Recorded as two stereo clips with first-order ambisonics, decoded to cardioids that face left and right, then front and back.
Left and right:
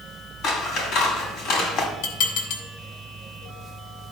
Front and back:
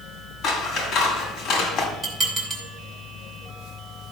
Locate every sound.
0.4 s scissors: 50° left, 2 m
2.0 s dishes clattering: 100° left, 3 m